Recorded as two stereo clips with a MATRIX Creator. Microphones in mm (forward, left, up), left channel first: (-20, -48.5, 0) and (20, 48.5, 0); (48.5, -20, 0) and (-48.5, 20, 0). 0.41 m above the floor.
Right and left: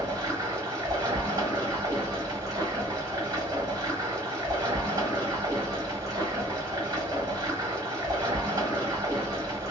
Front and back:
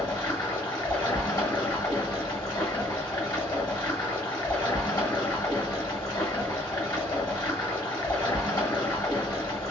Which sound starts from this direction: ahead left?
Running water, at 0.0 s.